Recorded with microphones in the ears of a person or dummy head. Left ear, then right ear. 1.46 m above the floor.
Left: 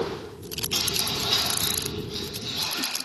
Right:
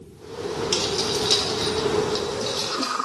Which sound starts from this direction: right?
Keys jangling, at 0.7 s.